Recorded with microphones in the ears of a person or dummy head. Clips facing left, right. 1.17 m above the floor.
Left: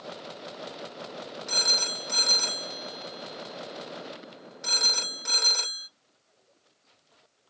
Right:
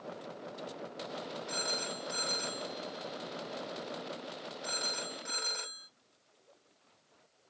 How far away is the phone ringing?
About 0.8 m.